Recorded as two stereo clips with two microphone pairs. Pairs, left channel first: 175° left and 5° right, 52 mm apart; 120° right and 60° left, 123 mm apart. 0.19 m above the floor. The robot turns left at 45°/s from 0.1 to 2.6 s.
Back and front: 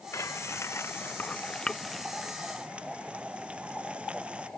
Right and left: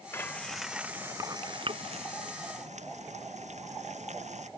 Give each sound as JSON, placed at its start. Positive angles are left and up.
{"t": 0.1, "sound": "frying", "azimuth_deg": 170}